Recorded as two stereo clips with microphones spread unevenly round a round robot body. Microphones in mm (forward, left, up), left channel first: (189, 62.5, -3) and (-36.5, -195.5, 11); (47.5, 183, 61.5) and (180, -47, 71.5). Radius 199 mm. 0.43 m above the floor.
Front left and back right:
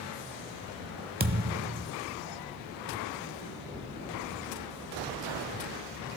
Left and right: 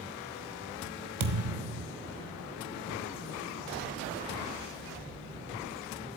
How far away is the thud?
About 1.2 m.